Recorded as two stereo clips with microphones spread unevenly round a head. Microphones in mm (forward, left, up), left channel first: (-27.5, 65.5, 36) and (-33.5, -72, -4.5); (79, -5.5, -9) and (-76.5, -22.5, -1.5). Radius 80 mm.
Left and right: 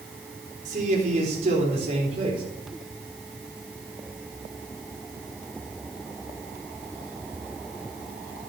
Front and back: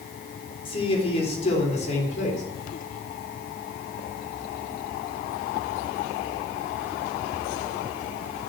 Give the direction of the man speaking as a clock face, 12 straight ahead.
2 o'clock.